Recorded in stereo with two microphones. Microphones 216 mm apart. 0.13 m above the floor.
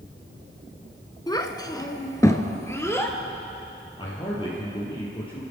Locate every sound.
1.3 s a child speaking: 20° left (ahead or behind), 1.0 m; by 3.2 s 10° left (ahead or behind), 2 m
4.0 s a man speaking: 25° left (ahead or behind), 3 m